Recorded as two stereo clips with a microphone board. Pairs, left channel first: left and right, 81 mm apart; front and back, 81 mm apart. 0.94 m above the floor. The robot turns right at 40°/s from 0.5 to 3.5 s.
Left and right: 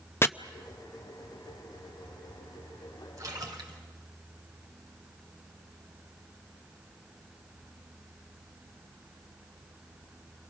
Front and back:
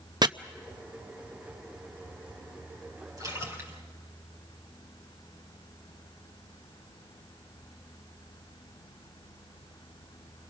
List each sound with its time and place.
0.2 s chopping: 150° left, 0.6 m
3.2 s a splash: 140° right, 4 m; by 3.8 s 125° right, 4 m